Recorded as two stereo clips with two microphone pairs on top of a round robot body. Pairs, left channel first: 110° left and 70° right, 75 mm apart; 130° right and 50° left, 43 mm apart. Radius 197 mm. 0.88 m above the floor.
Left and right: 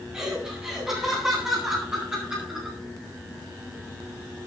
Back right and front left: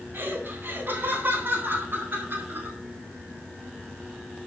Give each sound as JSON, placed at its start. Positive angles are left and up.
{"t": 0.1, "sound": "laughter", "azimuth_deg": 15, "distance_m": 9.5}